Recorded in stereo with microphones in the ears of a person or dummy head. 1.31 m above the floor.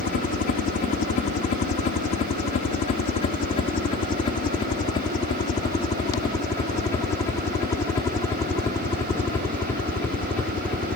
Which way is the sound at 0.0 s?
45° left (ahead or behind).